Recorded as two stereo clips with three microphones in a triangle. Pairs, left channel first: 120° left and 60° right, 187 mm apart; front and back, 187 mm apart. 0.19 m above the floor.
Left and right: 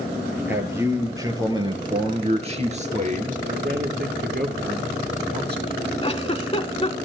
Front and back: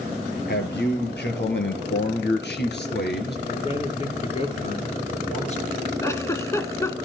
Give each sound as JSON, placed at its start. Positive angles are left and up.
{"t": 0.5, "sound": "a man speaking", "azimuth_deg": 20, "distance_m": 3.0}
{"t": 3.5, "sound": "a man speaking", "azimuth_deg": -50, "distance_m": 3.0}
{"t": 6.0, "sound": "a giggle", "azimuth_deg": 70, "distance_m": 0.9}